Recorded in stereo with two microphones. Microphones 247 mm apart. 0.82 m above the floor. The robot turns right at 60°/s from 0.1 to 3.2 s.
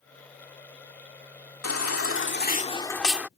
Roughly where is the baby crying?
Left.